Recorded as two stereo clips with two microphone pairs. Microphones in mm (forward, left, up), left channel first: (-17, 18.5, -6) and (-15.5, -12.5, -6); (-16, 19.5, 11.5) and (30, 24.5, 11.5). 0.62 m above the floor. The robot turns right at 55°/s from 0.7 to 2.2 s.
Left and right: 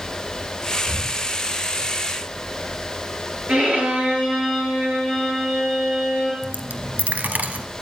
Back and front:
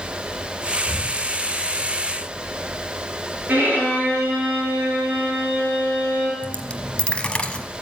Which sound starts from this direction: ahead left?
Breathing, at 0.8 s.